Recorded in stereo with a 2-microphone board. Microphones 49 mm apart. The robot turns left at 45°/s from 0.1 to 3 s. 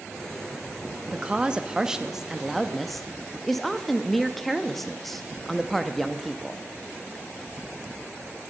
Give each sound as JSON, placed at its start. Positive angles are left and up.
{"t": 1.1, "sound": "a woman speaking", "side_deg": -20, "distance_m": 0.7}